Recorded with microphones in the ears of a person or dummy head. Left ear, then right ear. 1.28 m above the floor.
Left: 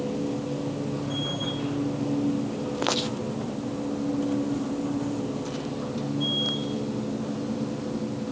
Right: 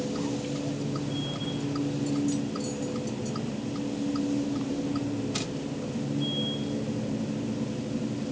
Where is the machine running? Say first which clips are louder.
Left 2 dB; 60° left (ahead or behind).